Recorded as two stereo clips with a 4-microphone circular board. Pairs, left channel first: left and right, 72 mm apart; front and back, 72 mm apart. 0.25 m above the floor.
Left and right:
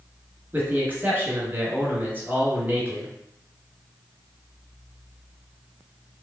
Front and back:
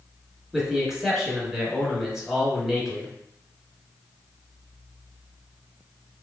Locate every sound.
0.5 s a man speaking: 100° right, 1.3 m